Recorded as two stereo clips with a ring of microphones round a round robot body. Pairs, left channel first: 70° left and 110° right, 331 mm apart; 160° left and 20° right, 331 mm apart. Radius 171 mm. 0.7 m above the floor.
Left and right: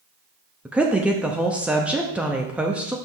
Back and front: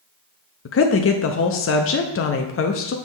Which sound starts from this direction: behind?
A woman speaking, at 0.7 s.